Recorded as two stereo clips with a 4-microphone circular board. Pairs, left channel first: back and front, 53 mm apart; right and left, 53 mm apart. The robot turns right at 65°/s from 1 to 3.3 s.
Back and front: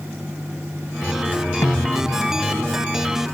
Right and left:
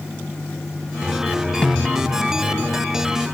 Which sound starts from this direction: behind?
A snare drum, at 1.6 s.